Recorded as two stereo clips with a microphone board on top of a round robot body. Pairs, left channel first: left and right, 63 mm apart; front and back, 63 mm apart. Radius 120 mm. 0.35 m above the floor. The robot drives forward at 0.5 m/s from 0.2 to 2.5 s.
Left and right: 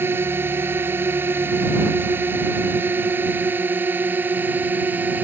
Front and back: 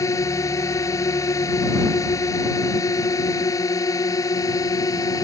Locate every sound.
0.0 s a drone: 35° right; by 5.2 s 30° right